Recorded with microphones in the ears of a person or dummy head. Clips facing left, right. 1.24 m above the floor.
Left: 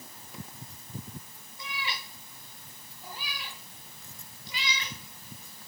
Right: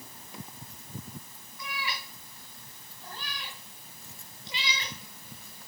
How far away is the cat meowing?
About 2 m.